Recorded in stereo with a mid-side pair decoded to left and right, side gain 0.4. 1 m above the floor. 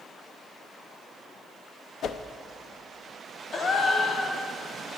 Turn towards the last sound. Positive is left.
turn(degrees=55)